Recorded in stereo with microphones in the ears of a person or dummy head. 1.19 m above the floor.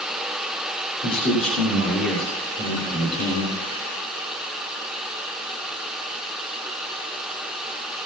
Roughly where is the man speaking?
Left.